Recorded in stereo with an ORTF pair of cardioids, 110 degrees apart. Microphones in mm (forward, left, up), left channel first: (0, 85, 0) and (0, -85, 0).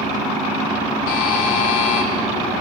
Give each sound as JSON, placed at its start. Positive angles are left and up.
{"t": 1.1, "sound": "a buzzer", "azimuth_deg": 60, "distance_m": 1.0}